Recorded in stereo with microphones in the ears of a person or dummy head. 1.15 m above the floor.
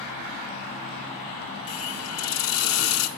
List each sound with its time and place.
1.7 s a hiss: 75° left (ahead or behind), 2.5 m